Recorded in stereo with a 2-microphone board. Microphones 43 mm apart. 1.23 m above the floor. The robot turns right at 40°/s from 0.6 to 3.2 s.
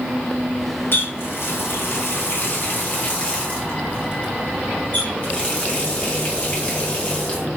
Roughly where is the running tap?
Ahead left.